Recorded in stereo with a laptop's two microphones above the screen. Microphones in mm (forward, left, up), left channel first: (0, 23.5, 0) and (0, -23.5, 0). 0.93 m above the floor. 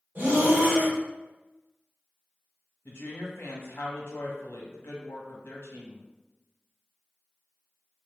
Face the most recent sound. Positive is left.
turn(degrees=60)  # may be behind; listen again after turning